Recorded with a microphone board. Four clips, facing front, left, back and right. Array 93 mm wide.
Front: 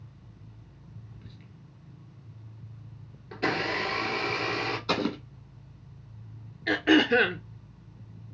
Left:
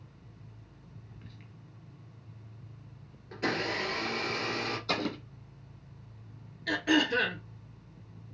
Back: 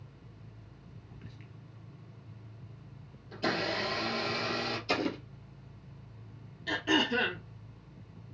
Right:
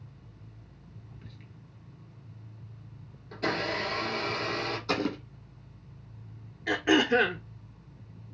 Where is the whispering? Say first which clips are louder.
Right 1 dB, even; 160° left, 1.0 m.